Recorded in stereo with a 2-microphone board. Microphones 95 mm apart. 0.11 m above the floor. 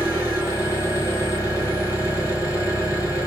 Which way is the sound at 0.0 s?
35° left (ahead or behind).